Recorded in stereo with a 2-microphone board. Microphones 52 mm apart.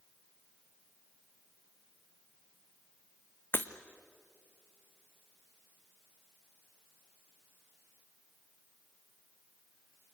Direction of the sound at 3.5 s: 40° left (ahead or behind).